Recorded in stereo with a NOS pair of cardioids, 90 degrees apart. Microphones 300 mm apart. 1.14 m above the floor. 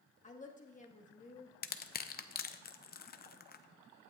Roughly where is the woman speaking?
Ahead left.